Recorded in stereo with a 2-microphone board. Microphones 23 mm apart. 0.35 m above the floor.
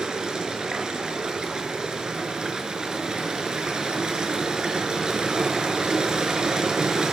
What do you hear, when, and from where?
0.0 s running water: 35° right (ahead or behind), 1.0 m